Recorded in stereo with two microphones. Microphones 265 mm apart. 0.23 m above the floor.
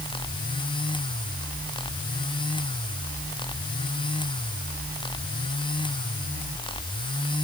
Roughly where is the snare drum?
I don't hear a snare drum.